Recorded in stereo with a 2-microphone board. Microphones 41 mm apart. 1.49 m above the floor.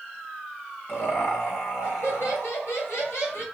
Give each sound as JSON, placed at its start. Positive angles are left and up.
{"t": 0.9, "sound": "laughter", "side_deg": 80, "distance_m": 1.6}